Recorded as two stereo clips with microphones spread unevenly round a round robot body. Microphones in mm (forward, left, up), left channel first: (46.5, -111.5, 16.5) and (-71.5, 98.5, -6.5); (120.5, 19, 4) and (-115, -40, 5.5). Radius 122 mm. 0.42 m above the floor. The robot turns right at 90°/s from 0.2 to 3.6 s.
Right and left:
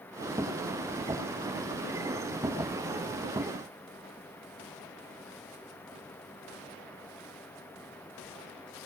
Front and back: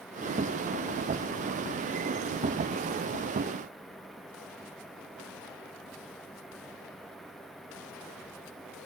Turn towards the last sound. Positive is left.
No sound to turn to.